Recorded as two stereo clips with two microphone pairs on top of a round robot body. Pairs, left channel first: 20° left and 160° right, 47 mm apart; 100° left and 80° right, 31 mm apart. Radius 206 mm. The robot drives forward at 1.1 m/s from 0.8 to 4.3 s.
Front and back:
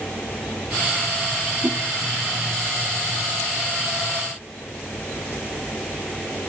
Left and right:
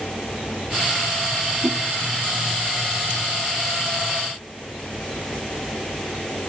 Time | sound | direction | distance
1.6 | a whoosh | 100° right | 2 m